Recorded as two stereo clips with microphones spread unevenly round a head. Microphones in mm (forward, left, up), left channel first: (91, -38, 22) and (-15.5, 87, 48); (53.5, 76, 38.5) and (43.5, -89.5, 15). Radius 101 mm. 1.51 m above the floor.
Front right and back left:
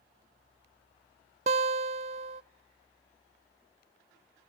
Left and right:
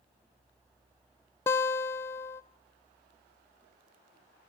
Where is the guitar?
150° left, 0.6 m.